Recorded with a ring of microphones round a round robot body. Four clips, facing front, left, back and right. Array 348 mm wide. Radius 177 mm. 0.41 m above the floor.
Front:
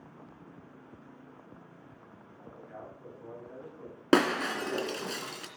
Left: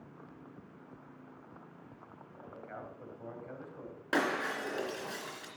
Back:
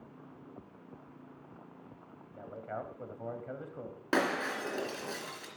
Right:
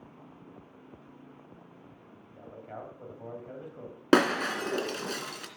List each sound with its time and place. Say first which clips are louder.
2.4 s a man speaking: right 3 dB, back 6 dB; 165° right, 2 m
4.1 s breaking glass: right 8 dB, front 6 dB; 55° right, 3 m